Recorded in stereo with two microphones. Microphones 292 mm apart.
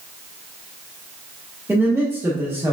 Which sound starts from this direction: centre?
A man speaking, at 1.7 s.